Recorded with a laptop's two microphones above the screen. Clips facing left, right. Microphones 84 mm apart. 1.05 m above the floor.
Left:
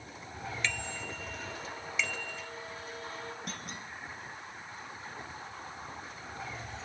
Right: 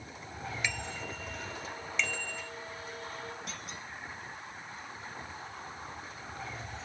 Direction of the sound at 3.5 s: 50° left (ahead or behind).